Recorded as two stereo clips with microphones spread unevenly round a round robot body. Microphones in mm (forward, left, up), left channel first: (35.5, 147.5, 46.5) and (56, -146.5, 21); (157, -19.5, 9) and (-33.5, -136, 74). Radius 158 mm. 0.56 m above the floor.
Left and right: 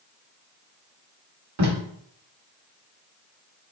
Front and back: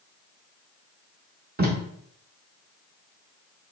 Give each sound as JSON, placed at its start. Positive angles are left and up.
{"t": 1.6, "sound": "tape being pulled", "azimuth_deg": -95, "distance_m": 1.0}